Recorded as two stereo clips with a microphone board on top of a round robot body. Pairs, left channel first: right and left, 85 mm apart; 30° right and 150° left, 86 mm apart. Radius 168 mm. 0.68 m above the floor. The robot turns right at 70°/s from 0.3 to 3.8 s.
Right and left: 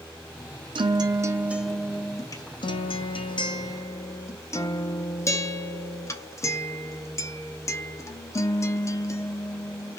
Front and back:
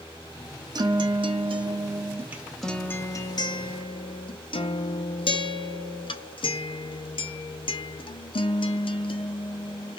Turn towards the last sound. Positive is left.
turn(degrees=-35)